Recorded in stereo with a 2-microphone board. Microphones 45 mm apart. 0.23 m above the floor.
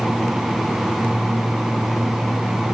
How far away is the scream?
No scream in this recording.